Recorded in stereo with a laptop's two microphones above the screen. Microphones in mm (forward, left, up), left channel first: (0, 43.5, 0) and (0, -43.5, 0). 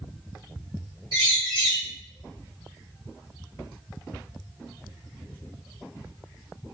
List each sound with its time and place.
1.1 s a bird: 80° right, 1.8 m